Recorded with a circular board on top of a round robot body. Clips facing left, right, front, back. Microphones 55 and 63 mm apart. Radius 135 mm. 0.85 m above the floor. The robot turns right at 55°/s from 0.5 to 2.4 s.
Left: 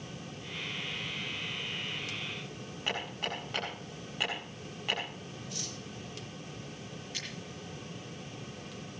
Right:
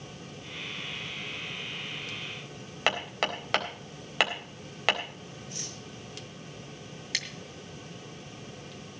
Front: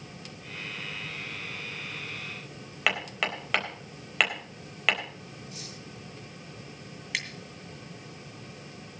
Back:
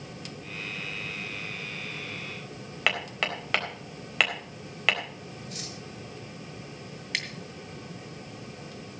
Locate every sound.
2.9 s hammering: 90° right, 4 m
5.5 s cutlery clinking: 155° right, 3 m
7.1 s scissors: 85° right, 2.5 m